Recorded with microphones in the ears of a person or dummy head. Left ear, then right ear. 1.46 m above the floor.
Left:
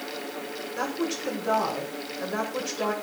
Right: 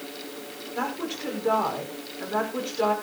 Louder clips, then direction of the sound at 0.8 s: Even; 20° right (ahead or behind).